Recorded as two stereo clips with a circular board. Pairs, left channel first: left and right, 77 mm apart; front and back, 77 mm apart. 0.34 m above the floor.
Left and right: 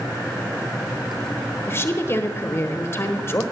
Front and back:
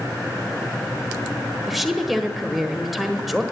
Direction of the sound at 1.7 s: 90° left.